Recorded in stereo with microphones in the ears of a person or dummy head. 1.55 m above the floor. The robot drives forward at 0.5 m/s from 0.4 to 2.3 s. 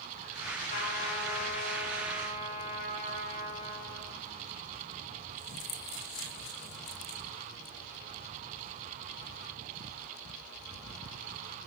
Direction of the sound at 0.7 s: 50° left (ahead or behind).